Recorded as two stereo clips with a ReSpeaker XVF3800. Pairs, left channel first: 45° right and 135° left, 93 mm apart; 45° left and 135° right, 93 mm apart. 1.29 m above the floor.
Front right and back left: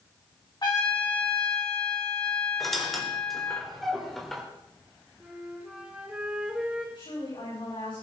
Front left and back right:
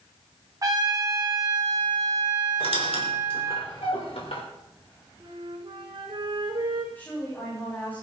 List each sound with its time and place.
0.6 s a trumpet: 85° right, 2.5 m
2.6 s a squeak: 40° left, 3 m
5.2 s a flute: 150° right, 2.5 m
7.0 s a woman speaking: 25° right, 8 m